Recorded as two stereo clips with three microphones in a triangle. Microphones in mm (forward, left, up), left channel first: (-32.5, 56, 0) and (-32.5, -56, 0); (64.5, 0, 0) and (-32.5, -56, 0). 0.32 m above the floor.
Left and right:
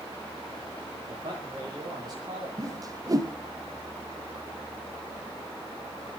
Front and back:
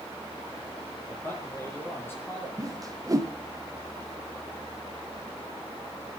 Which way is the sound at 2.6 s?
120° right.